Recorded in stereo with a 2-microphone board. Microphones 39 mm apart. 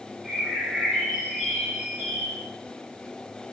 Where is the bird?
20° right (ahead or behind), 9 m.